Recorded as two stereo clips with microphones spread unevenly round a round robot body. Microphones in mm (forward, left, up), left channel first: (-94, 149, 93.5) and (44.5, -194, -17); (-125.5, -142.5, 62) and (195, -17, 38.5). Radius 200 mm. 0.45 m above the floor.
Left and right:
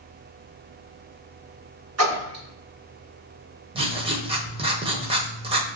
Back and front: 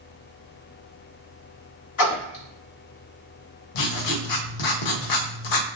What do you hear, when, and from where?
2.0 s a splash: 115° right, 2 m
3.8 s writing: 135° right, 0.8 m